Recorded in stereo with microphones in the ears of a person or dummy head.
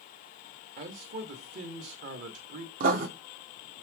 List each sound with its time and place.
0.8 s a man speaking: 50° right (ahead or behind), 2.5 m
2.8 s writing: 50° right (ahead or behind), 1.9 m